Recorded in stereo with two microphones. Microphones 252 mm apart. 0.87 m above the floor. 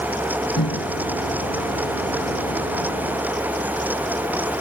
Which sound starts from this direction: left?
A microwave, at 0.6 s.